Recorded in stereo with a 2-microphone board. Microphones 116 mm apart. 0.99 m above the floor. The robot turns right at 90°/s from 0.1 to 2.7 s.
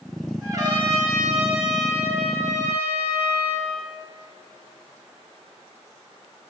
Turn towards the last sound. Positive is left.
turn(degrees=45)